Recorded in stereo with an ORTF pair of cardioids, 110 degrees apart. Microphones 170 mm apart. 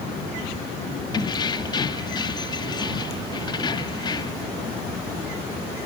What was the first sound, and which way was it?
Keys jangling, 25° left.